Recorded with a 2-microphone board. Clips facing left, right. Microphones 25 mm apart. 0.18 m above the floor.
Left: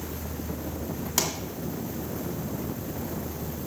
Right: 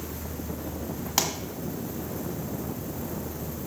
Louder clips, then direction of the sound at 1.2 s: Right 1 dB; 25° right (ahead or behind).